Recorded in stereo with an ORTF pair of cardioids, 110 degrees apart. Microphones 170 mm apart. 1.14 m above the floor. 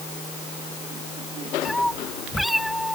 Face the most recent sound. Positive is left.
turn(degrees=0)